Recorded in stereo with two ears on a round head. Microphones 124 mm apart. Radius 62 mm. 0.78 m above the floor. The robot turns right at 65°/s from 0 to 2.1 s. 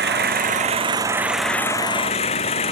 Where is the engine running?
90° right; by 2.7 s 45° left.